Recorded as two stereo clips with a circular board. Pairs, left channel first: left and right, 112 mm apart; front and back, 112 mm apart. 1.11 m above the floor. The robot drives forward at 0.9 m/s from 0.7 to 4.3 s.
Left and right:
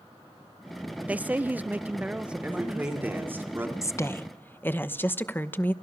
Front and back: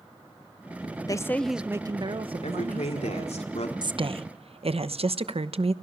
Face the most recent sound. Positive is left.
turn(degrees=160)